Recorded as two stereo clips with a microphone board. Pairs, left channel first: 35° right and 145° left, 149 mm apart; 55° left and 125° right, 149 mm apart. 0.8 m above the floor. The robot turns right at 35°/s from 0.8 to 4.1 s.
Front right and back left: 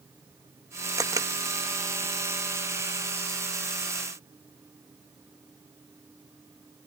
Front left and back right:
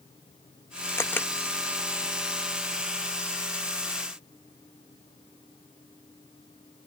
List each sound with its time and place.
1.0 s a camera shutter: 110° left; by 1.3 s 120° left